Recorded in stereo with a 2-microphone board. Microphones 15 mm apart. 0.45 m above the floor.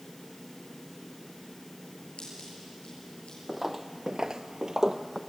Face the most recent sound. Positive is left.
turn(degrees=-25)  # may be behind; listen again after turning